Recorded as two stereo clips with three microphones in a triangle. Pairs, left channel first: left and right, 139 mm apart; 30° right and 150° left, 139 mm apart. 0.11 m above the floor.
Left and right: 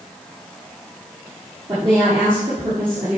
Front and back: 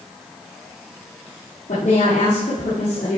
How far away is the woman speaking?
About 3 m.